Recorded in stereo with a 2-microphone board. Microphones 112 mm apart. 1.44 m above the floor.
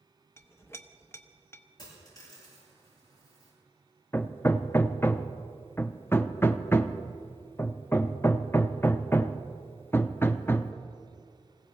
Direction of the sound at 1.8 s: 35° left (ahead or behind).